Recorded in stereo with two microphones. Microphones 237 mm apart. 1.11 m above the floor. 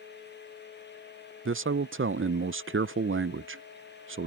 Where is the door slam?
No door slam in this recording.